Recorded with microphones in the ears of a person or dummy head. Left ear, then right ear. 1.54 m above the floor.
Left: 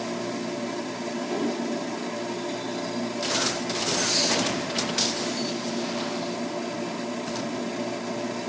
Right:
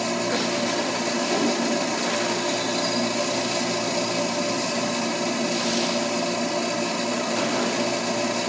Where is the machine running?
25° right (ahead or behind).